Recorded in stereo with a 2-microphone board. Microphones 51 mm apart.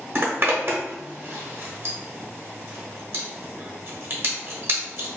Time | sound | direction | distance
0.1 | a zipper | 45° right (ahead or behind) | 0.9 m